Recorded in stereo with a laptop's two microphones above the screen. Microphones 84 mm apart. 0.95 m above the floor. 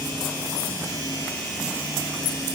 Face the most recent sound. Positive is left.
No sound to turn to.